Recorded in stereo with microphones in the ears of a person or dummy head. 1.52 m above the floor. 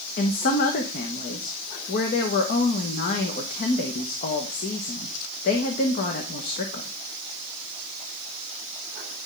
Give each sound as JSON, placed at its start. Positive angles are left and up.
{"t": 0.2, "sound": "a woman speaking", "side_deg": 45, "distance_m": 1.1}